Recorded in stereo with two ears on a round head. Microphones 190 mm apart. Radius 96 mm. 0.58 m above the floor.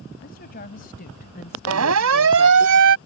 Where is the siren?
75° right (ahead or behind); by 3.0 s 60° right (ahead or behind).